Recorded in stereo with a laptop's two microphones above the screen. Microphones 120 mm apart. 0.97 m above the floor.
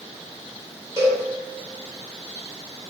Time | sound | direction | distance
1.0 | a cowbell | 25° right (ahead or behind) | 1.6 m